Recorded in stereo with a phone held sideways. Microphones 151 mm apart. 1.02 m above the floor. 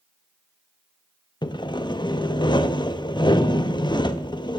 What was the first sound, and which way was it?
Sawing, 30° left (ahead or behind).